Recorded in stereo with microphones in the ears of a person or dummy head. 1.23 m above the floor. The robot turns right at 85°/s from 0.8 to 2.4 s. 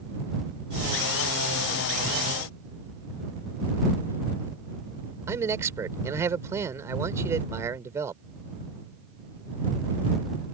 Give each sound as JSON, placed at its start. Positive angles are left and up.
{"t": 5.3, "sound": "a man speaking", "side_deg": -15}